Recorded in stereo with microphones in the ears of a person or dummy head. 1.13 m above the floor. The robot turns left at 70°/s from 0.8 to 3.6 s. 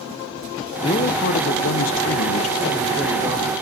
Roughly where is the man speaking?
Behind left.